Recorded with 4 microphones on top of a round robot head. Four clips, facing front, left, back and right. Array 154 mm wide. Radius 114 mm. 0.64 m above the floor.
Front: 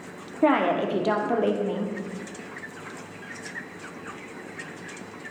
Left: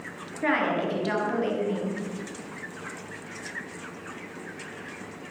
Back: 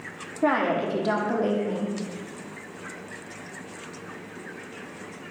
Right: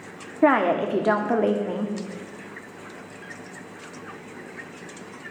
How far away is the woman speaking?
About 1.6 m.